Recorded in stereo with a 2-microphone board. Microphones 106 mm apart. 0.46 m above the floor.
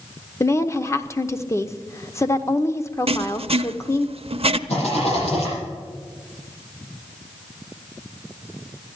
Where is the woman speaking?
25° left (ahead or behind), 0.8 m.